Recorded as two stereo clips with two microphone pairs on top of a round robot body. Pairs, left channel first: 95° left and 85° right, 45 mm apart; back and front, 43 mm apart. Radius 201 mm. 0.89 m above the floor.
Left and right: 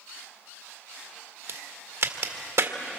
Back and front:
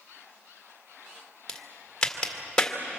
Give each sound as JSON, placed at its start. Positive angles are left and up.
{"t": 1.5, "sound": "a crack", "azimuth_deg": -105, "distance_m": 1.9}